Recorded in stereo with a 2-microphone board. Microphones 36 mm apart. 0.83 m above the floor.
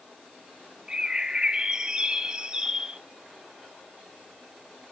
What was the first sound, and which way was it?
A bird, 20° right (ahead or behind).